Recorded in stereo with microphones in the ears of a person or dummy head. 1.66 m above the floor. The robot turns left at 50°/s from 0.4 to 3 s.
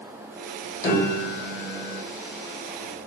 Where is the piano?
20° left, 1.2 m; by 2.0 s 35° right, 1.2 m.